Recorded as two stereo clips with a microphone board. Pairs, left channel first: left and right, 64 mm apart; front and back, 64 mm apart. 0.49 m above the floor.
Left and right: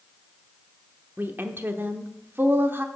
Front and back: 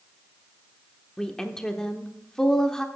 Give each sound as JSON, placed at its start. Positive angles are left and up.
{"t": 1.2, "sound": "a woman speaking", "azimuth_deg": -70, "distance_m": 0.9}